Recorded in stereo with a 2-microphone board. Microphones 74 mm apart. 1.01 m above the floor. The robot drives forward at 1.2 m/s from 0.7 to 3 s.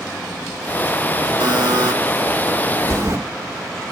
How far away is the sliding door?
About 1.3 m.